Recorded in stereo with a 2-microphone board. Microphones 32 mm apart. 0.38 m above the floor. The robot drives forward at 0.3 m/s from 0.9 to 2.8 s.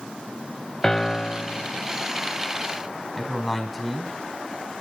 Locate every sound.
0.8 s a piano: 15° left (ahead or behind), 0.5 m
3.2 s a man speaking: 5° right (ahead or behind), 3.5 m